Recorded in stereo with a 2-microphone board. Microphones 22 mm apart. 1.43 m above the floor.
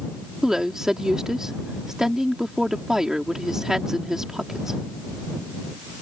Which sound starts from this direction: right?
A woman speaking, at 0.4 s.